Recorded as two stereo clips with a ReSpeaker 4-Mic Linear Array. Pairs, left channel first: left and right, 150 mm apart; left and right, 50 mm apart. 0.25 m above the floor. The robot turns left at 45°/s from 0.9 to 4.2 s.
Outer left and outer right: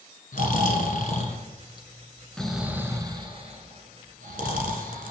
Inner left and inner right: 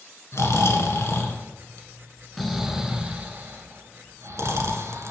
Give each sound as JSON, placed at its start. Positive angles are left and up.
{"t": 0.3, "sound": "snoring", "side_deg": 65, "distance_m": 1.3}